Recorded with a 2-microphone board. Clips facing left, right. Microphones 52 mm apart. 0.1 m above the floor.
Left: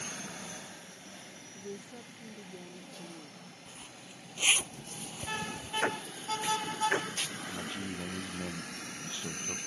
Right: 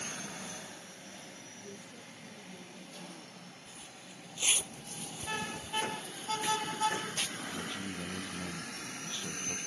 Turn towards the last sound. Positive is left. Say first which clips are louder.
# left 1 dB
turn(degrees=20)  # may be behind; listen again after turning